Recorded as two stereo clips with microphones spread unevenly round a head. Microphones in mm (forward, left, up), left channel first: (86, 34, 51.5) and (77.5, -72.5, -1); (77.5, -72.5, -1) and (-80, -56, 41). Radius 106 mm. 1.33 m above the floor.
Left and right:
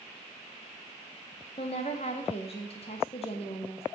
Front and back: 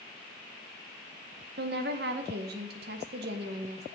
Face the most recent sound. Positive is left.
turn(degrees=135)